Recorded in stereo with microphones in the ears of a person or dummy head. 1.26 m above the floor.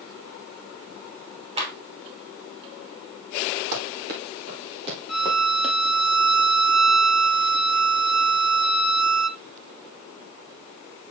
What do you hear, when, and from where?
1.6 s a clap: 30° right (ahead or behind), 3 m
3.7 s running footsteps: 60° right (ahead or behind), 2.5 m; by 5.8 s 5° left (ahead or behind), 2.5 m
5.1 s a violin: centre (ahead or behind), 1.0 m